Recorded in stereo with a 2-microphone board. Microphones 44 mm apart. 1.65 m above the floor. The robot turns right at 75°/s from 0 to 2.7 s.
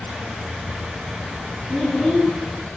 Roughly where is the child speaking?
Ahead.